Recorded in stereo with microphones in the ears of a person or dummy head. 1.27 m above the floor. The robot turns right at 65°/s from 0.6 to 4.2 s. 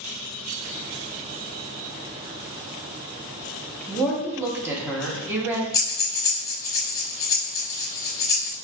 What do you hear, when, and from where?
3.9 s a woman speaking: 10° left (ahead or behind), 0.8 m; by 5.6 s 15° right (ahead or behind), 0.8 m
5.7 s breathing: 20° left (ahead or behind), 1.0 m